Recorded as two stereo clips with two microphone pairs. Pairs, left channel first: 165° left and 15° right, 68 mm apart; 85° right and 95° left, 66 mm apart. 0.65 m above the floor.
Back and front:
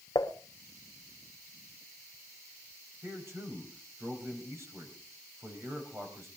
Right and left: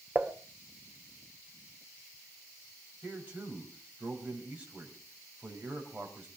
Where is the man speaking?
30° left, 4 m.